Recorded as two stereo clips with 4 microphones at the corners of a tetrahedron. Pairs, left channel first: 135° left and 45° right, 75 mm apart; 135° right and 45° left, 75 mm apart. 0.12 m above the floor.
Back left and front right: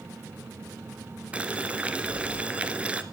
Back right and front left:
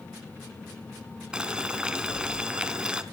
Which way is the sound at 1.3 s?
15° right.